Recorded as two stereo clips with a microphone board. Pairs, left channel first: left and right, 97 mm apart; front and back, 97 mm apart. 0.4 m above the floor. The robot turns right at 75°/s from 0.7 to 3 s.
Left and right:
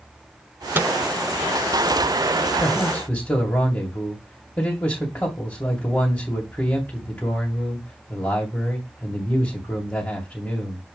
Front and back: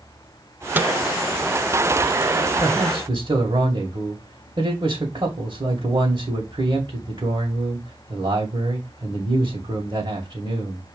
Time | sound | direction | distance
0.8 | a microwave | 135° right | 0.7 m
2.6 | a man speaking | 125° left | 2.0 m